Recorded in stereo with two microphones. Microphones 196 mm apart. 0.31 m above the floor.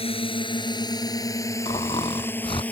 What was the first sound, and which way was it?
A drone, 25° left (ahead or behind).